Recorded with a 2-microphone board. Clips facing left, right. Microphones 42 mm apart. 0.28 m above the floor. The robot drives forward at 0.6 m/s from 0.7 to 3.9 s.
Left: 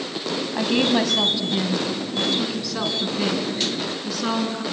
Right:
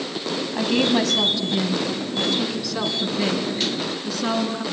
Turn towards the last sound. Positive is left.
turn(degrees=5)  # may be behind; listen again after turning